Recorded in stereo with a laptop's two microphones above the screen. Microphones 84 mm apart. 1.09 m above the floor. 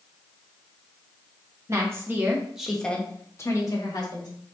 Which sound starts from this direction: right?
A woman speaking, at 1.7 s.